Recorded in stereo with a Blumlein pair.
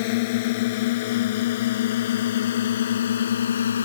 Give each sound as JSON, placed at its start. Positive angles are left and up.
{"t": 0.0, "sound": "a drone", "azimuth_deg": 50}